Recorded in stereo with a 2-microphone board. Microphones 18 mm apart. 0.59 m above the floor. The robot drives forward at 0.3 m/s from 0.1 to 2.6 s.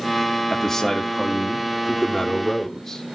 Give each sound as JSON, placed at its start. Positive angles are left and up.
{"t": 0.5, "sound": "a man speaking", "side_deg": 25, "distance_m": 1.0}